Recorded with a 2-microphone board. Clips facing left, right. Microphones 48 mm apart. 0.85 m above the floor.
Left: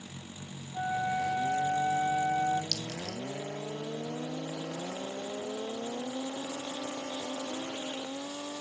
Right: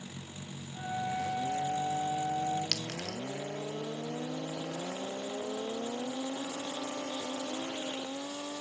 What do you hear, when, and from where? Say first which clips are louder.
0.7 s a flute: left 4 dB; 55° left (ahead or behind), 7 m
2.7 s a clink: even; 80° right, 1.0 m